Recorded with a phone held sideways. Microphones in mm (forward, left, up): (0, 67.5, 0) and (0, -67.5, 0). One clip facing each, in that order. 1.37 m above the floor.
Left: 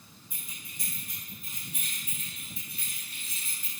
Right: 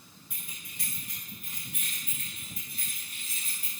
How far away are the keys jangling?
About 4.5 m.